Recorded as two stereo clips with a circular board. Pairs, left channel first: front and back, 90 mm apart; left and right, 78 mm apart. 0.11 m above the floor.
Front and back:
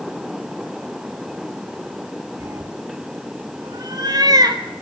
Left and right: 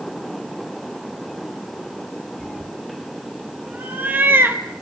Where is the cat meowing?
165° left, 0.9 m; by 4.6 s 145° right, 1.6 m.